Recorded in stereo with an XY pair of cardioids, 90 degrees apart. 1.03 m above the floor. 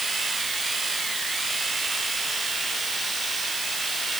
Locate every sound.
0.0 s a machine running: 35° right